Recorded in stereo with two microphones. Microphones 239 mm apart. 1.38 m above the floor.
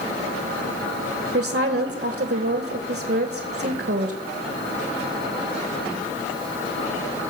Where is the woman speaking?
45° right (ahead or behind), 0.9 m.